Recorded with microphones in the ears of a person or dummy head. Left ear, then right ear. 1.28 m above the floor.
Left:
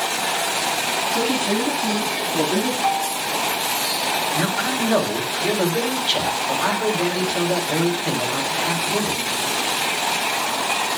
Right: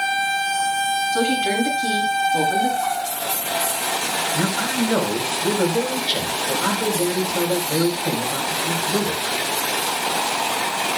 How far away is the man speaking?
About 4 m.